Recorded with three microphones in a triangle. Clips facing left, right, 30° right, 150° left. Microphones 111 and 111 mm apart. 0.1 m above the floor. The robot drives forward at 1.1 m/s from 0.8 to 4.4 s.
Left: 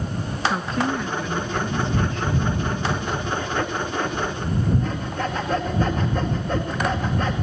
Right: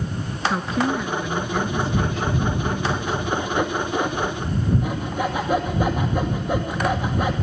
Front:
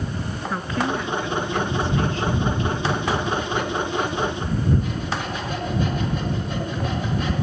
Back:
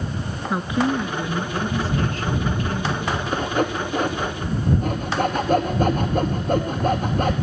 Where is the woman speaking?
165° right, 1.4 m; by 3.2 s straight behind, 3.5 m.